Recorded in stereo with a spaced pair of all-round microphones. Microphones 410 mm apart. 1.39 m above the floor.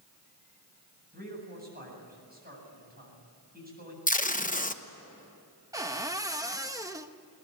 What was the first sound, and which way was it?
A man speaking, 20° right (ahead or behind).